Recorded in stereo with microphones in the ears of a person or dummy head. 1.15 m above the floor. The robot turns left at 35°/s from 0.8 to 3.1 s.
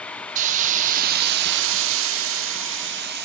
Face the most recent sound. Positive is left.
turn(degrees=-120)